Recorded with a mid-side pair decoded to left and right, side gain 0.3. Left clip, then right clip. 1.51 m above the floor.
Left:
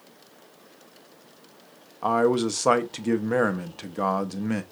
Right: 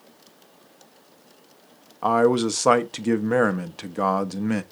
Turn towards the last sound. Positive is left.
turn(degrees=-35)